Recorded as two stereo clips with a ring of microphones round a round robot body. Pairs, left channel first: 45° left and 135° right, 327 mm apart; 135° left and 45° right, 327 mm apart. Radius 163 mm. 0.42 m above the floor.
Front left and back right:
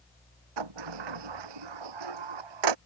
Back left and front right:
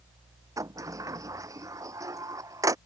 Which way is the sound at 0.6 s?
125° right.